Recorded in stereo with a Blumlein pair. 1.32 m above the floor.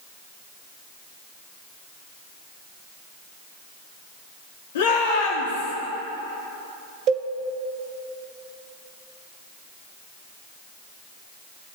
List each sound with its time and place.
4.8 s a shout: 55° left, 2.5 m
7.1 s a cowbell: 35° right, 0.9 m